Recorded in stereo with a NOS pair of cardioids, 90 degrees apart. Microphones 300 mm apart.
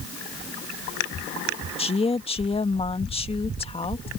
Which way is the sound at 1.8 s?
20° left.